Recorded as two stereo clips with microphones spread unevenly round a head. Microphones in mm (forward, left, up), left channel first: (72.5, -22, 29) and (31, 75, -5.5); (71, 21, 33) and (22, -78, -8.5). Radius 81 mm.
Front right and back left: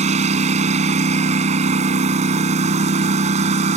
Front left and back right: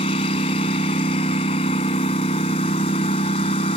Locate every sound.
0.0 s a lawn mower: 95° left